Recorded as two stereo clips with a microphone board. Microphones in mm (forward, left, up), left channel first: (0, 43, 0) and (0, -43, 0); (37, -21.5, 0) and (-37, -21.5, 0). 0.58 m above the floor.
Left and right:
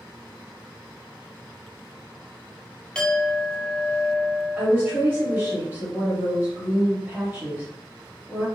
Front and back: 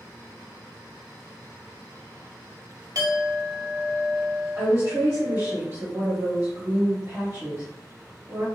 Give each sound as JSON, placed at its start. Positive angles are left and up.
{"t": 3.0, "sound": "a clink", "azimuth_deg": 165, "distance_m": 0.8}
{"t": 4.6, "sound": "a woman speaking", "azimuth_deg": -145, "distance_m": 1.6}